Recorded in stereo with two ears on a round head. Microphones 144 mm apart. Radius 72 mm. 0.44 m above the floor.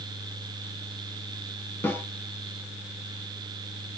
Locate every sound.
1.8 s a snare drum: 10° left (ahead or behind), 0.7 m